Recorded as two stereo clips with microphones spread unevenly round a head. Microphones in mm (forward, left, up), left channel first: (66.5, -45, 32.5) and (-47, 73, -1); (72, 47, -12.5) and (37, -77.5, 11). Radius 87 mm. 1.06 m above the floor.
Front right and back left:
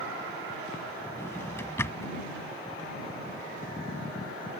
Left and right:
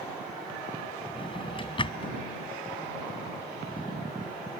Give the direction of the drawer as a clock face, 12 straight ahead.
11 o'clock.